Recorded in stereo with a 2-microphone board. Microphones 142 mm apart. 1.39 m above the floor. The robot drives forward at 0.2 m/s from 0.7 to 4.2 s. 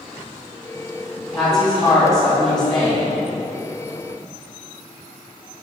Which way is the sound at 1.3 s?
30° left (ahead or behind).